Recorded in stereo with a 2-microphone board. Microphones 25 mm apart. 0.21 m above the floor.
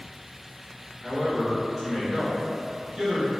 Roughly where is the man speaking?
Centre.